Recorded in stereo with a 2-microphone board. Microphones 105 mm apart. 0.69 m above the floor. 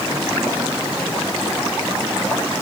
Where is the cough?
I don't hear a cough.